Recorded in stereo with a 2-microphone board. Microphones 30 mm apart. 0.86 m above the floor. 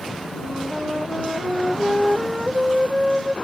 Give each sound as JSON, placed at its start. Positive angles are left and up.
{"t": 0.4, "sound": "a flute", "side_deg": -15}